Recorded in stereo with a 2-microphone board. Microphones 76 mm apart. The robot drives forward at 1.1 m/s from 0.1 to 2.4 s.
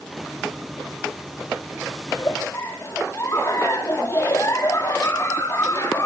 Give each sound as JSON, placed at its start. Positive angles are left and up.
{"t": 2.1, "sound": "a giggle", "side_deg": 40, "distance_m": 5.5}